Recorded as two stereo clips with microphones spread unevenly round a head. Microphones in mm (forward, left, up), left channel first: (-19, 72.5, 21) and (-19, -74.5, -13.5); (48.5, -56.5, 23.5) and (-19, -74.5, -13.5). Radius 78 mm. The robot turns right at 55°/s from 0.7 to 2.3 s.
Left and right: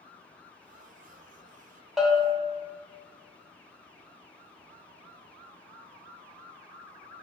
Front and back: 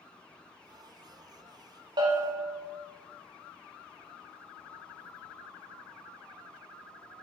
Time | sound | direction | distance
2.0 | a bell | 175° right | 0.6 m